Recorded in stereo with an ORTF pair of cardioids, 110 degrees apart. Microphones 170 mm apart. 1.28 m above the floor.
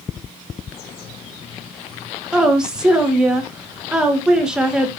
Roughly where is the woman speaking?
Ahead.